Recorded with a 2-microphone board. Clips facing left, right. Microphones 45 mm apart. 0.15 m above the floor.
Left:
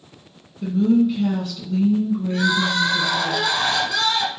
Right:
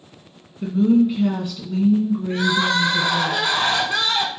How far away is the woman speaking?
About 1.5 m.